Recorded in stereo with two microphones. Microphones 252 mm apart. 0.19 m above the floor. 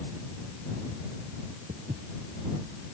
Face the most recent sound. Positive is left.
turn(degrees=-40)  # may be behind; listen again after turning